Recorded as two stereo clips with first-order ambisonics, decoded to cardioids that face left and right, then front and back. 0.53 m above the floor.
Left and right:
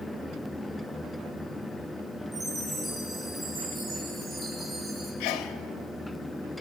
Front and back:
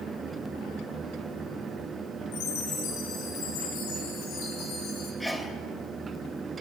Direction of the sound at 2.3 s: 10° right.